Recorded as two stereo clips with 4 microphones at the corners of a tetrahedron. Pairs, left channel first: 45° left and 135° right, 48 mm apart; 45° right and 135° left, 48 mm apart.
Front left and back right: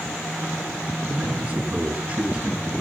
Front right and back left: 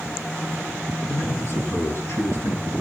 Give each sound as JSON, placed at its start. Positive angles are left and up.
{"t": 1.1, "sound": "a man speaking", "azimuth_deg": -75, "distance_m": 6.0}